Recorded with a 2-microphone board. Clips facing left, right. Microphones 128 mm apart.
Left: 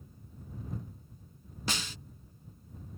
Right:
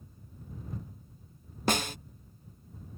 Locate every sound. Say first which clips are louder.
1.7 s a snare drum: right 9 dB; 55° right (ahead or behind)